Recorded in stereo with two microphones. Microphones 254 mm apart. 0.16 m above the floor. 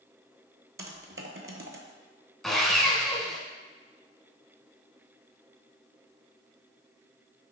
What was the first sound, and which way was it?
Typing on a keyboard, 55° right (ahead or behind).